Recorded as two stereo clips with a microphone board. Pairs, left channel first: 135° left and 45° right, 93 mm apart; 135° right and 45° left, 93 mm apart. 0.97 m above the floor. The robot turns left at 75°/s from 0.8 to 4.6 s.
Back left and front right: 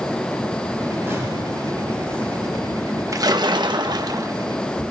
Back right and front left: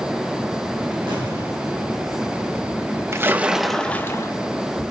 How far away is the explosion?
About 6.5 m.